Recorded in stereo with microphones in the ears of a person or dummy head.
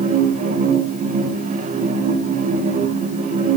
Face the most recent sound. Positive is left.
turn(degrees=-40)  # may be behind; listen again after turning